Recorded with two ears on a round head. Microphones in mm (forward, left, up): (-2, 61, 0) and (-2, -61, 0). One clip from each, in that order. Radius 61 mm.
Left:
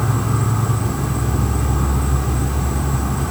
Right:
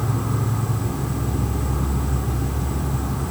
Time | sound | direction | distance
0.0 | an insect | 20° left (ahead or behind) | 2 m